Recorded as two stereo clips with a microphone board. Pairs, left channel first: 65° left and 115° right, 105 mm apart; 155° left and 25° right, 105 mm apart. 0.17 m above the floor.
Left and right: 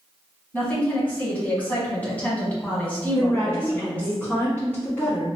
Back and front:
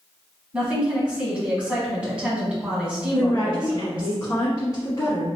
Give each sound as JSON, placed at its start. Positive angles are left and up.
{"t": 0.5, "sound": "a woman speaking", "azimuth_deg": 30, "distance_m": 1.3}
{"t": 3.1, "sound": "a woman speaking", "azimuth_deg": 130, "distance_m": 1.4}